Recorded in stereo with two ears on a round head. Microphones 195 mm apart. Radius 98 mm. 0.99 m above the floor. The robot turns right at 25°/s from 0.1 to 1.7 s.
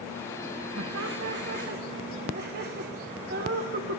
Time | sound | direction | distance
0.8 | laughter | 65° right (ahead or behind) | 1.3 m